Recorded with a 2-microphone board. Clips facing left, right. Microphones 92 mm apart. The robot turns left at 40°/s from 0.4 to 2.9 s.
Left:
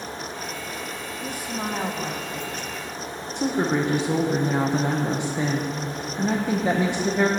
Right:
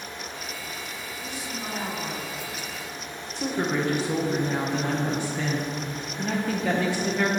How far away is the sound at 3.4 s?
About 0.9 m.